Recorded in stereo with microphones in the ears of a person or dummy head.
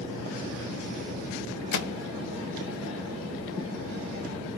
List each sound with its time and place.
1.7 s a microwave: 65° left (ahead or behind), 0.9 m